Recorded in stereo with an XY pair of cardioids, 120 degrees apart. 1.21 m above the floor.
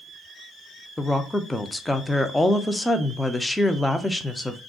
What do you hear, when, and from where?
1.0 s a woman speaking: 10° left, 0.5 m